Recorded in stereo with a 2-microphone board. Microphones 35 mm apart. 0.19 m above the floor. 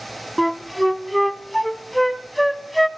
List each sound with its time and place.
0.4 s a flute: centre (ahead or behind), 0.5 m